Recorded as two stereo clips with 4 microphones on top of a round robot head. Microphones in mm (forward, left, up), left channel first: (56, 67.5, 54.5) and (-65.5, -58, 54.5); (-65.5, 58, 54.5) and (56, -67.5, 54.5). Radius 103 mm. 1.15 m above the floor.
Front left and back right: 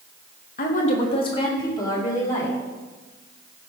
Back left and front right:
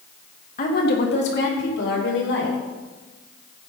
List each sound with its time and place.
0.6 s a woman speaking: 85° left, 1.2 m; by 2.6 s 120° left, 3.5 m